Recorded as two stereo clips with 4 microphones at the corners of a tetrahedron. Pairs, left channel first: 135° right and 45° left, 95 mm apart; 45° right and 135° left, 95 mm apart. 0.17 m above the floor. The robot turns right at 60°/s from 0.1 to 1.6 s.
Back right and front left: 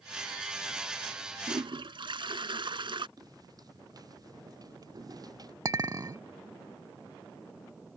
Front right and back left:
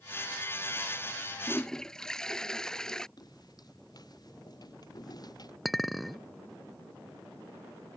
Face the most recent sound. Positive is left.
turn(degrees=45)